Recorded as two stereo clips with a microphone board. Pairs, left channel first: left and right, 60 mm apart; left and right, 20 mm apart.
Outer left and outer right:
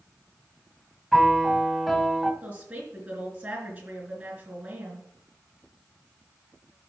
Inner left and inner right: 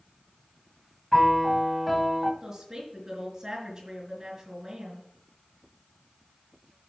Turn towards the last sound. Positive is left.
turn(degrees=-25)  # may be behind; listen again after turning